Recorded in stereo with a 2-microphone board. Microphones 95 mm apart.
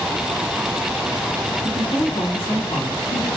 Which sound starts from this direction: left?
A woman speaking, at 1.6 s.